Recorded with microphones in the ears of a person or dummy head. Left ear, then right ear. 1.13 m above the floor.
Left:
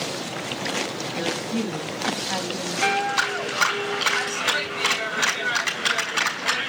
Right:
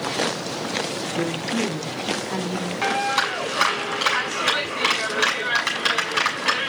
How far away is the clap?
About 7.5 m.